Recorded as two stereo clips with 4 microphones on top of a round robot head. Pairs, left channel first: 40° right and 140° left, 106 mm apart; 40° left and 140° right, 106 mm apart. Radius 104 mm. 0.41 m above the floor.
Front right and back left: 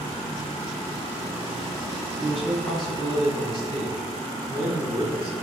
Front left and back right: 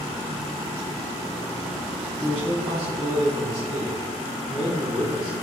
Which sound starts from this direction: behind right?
A man speaking, at 2.2 s.